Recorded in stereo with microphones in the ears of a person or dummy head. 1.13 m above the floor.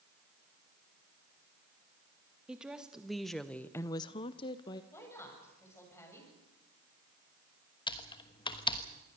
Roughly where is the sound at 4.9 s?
Centre.